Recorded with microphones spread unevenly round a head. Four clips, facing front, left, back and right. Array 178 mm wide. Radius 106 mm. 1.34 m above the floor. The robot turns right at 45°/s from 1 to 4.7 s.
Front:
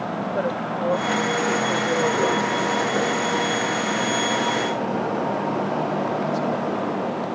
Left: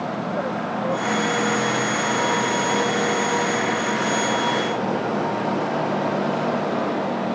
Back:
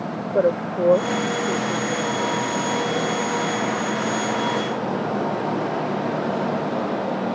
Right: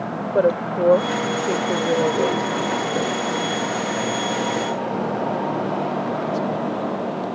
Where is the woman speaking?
125° right; by 3.1 s 30° right.